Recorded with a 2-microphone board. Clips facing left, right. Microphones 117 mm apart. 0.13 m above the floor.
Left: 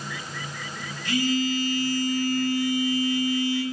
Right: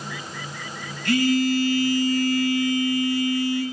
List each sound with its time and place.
1.1 s a phone buzzing: 70° right (ahead or behind), 0.6 m